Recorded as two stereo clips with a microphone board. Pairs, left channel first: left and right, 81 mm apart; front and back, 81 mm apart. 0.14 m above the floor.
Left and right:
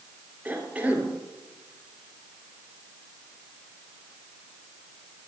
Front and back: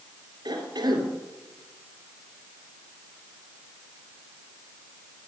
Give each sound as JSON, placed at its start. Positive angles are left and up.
{"t": 0.5, "sound": "a cough", "azimuth_deg": -160, "distance_m": 3.0}